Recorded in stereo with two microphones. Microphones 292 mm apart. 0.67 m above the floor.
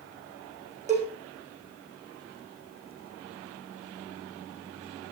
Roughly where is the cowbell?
Right.